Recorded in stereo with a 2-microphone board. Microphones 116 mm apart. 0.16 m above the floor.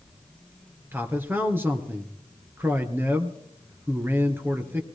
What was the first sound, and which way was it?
A man speaking, 20° right (ahead or behind).